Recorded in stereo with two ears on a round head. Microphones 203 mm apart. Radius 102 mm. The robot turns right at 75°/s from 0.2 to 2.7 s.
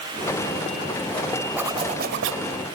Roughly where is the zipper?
Behind.